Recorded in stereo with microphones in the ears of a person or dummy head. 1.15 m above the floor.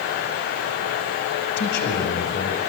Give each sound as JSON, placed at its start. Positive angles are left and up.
{"t": 1.6, "sound": "a man speaking", "side_deg": 55, "distance_m": 5.0}